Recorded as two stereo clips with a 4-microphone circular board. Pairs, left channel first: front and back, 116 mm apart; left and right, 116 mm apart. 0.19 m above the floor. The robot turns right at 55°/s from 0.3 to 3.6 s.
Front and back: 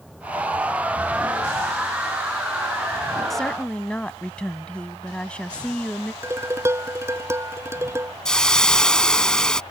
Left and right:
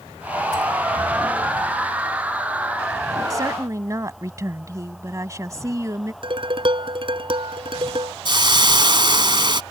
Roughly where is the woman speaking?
Right.